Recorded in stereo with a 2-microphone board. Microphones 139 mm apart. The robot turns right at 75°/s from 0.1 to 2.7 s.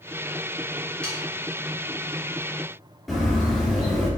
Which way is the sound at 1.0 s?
10° left (ahead or behind).